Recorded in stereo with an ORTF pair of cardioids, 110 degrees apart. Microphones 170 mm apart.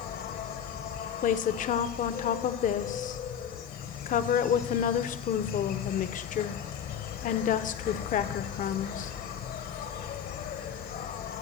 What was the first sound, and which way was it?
An insect, 60° left.